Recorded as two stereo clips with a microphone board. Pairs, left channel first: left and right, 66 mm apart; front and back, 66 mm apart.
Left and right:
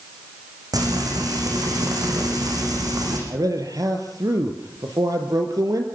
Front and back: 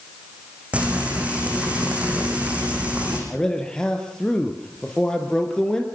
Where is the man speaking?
80° right, 3 m.